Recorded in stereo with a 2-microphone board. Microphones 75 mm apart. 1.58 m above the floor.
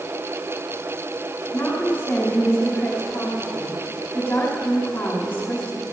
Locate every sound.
1.5 s a woman speaking: 25° left (ahead or behind), 4.5 m